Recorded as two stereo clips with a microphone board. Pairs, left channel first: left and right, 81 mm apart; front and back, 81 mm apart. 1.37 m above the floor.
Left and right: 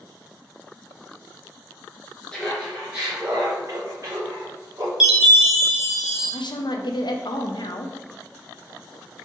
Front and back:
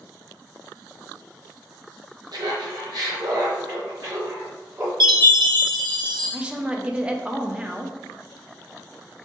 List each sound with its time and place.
2.3 s laughter: 170° left, 0.6 m; by 4.9 s 130° right, 1.6 m
5.0 s a chime: 175° right, 0.9 m
6.3 s a woman speaking: 105° left, 0.5 m